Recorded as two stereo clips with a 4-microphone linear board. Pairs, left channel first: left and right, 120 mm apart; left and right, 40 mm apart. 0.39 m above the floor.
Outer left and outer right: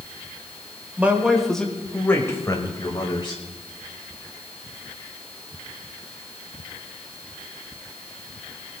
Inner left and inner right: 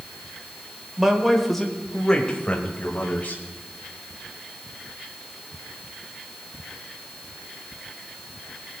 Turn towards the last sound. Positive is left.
turn(degrees=40)  # may be behind; listen again after turning